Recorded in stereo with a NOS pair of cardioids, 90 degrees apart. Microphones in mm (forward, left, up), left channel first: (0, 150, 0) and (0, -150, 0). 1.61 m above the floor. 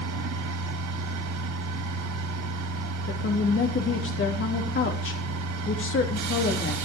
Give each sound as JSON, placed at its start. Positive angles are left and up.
{"t": 0.0, "sound": "a machine running", "azimuth_deg": -65, "distance_m": 3.0}
{"t": 3.1, "sound": "a woman speaking", "azimuth_deg": 40, "distance_m": 3.0}